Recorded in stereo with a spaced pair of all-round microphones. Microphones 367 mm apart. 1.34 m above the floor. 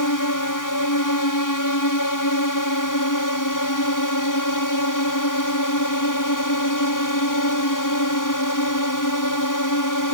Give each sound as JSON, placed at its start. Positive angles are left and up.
{"t": 0.0, "sound": "a drone", "side_deg": 60}